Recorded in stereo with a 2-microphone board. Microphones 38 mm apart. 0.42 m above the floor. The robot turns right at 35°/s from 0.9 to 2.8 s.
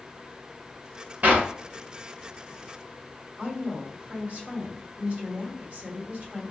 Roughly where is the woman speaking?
Right.